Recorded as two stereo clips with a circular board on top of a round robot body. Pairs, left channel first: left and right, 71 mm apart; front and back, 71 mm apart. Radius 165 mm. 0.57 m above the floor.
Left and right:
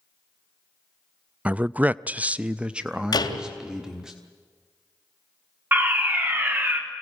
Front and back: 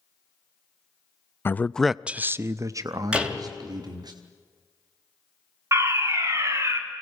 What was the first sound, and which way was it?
A man speaking, 30° right.